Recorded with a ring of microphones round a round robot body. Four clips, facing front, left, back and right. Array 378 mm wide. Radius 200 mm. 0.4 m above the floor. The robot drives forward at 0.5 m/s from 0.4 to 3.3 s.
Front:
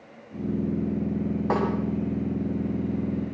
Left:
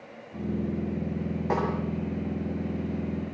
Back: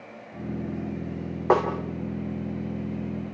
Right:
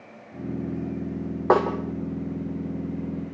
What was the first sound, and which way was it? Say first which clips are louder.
A snare drum: right 9 dB, back 5 dB; 120° right.